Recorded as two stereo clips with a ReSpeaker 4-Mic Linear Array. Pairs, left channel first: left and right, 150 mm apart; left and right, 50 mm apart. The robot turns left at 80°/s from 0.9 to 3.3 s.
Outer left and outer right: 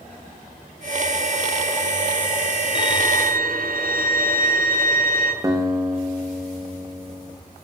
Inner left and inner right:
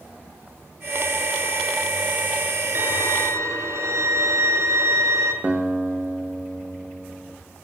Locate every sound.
2.8 s a violin: 45° right, 5 m; by 5.3 s 90° right, 5 m
5.4 s a guitar: 25° right (ahead or behind), 6 m